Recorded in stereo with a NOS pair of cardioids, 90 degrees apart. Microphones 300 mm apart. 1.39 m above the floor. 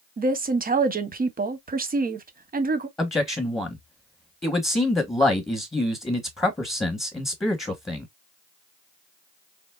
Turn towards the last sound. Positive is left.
turn(degrees=10)